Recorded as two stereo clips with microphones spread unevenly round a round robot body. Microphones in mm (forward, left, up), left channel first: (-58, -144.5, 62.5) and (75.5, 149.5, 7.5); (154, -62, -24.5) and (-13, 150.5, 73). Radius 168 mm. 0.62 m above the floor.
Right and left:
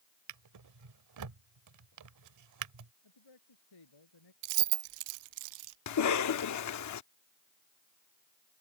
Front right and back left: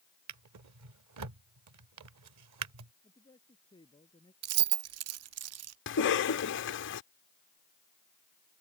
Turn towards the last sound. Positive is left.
turn(degrees=-75)